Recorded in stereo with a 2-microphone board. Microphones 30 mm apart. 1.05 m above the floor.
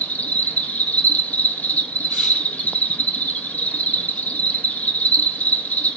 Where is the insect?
60° left (ahead or behind), 1.4 m.